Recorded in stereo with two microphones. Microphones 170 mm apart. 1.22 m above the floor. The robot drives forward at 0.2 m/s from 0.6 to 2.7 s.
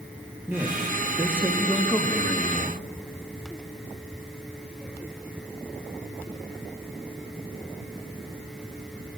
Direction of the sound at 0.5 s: 15° right (ahead or behind).